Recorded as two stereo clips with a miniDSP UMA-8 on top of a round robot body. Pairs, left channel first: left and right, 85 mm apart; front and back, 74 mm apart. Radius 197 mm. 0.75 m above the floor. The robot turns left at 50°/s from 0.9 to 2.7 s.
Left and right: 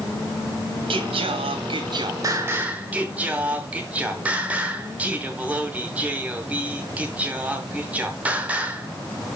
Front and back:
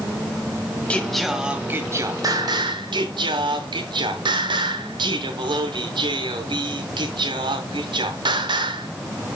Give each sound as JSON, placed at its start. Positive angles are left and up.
{"t": 0.9, "sound": "singing", "azimuth_deg": -75, "distance_m": 0.9}